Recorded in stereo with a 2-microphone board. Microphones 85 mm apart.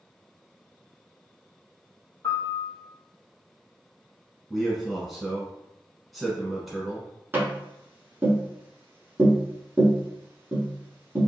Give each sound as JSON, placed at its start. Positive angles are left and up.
{"t": 2.2, "sound": "a piano", "side_deg": 30, "distance_m": 1.2}
{"t": 4.5, "sound": "a man speaking", "side_deg": 0, "distance_m": 1.0}
{"t": 7.3, "sound": "tapping", "side_deg": -25, "distance_m": 1.2}